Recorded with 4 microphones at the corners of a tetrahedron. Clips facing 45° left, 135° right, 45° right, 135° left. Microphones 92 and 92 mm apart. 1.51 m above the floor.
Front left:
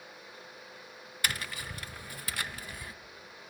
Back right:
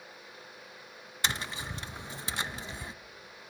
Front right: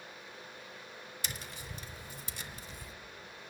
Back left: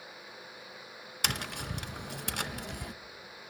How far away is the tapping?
About 0.5 m.